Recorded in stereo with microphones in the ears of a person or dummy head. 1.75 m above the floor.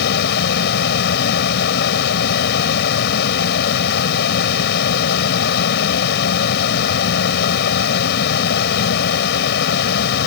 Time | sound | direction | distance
0.0 | a fan | 60° left (ahead or behind) | ?